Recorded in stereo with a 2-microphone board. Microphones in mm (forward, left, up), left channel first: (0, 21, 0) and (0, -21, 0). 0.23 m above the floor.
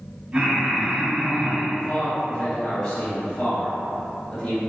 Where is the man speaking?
35° left (ahead or behind), 1.4 m.